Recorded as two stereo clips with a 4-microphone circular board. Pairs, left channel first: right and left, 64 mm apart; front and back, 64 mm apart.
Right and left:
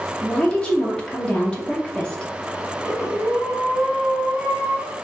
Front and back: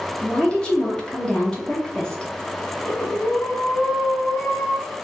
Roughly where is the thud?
No thud in this recording.